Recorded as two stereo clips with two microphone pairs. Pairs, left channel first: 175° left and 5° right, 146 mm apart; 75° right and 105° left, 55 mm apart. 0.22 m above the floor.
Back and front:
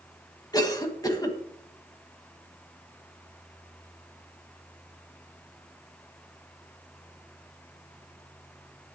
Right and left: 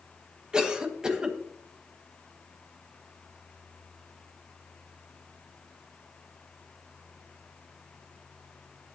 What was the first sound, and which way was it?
A cough, 160° left.